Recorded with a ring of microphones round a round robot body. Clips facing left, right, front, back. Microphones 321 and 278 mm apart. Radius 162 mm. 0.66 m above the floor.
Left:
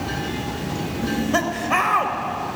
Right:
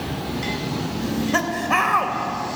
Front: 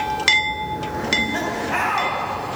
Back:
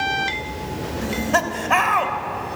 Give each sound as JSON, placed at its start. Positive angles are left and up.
{"t": 1.0, "sound": "laughter", "azimuth_deg": -175, "distance_m": 2.5}